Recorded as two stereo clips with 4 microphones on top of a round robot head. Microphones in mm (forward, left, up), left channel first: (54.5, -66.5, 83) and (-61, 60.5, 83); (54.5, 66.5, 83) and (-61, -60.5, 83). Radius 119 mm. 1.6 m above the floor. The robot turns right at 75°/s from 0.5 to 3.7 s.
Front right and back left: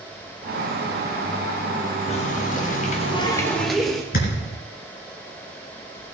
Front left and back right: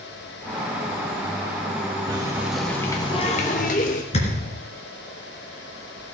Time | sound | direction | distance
2.1 | a running tap | 80° right | 0.9 m
4.1 | a thud | 5° right | 3.5 m